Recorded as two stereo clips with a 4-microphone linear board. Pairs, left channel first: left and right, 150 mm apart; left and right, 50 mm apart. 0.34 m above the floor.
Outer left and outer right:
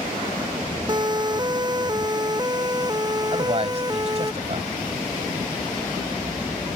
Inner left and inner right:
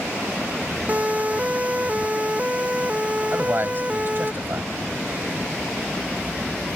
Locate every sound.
0.9 s a siren: 30° right (ahead or behind); by 4.3 s 25° right (ahead or behind)
3.3 s a man speaking: 45° right (ahead or behind)